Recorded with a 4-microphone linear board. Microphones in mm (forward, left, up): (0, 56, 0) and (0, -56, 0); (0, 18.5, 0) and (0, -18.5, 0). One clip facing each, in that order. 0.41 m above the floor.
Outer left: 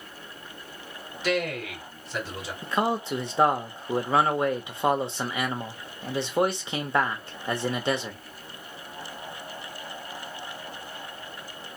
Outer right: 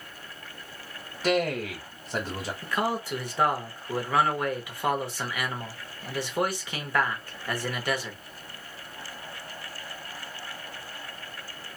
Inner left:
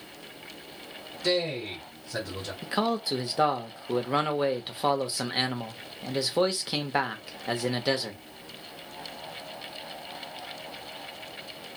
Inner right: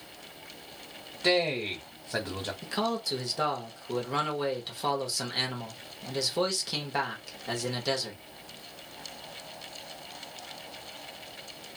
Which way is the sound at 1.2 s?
35° right (ahead or behind).